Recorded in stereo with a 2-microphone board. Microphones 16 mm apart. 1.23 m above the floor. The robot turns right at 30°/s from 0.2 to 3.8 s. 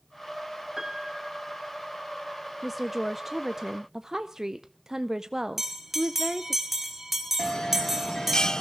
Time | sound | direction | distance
0.8 | a piano | 25° right | 1.6 m
2.6 | a woman speaking | 165° right | 0.6 m
5.6 | a bell | 15° right (ahead or behind) | 2.5 m
7.4 | a bell | 50° left (ahead or behind) | 0.7 m